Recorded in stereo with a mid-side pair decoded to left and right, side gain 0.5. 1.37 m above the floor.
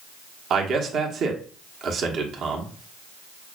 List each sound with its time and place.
0.5 s a man speaking: 60° right, 1.3 m